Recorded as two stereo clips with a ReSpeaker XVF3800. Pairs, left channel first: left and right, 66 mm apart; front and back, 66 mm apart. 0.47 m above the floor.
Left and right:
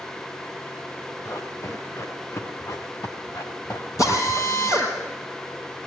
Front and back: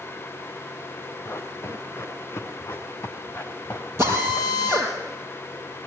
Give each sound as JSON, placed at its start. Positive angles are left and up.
{"t": 1.2, "sound": "running footsteps", "azimuth_deg": 50, "distance_m": 4.5}
{"t": 4.0, "sound": "a drill", "azimuth_deg": 130, "distance_m": 6.0}